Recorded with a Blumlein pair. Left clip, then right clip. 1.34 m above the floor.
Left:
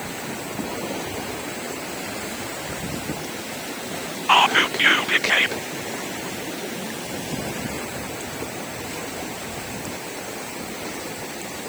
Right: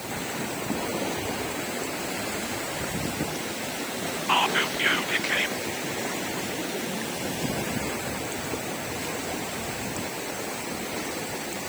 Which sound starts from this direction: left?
Whispering, at 4.3 s.